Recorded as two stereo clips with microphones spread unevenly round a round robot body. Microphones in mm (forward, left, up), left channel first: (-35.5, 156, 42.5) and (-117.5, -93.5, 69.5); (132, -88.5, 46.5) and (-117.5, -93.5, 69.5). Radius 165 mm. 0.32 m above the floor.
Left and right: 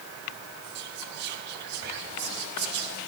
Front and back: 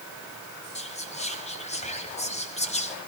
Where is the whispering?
60° right, 2 m.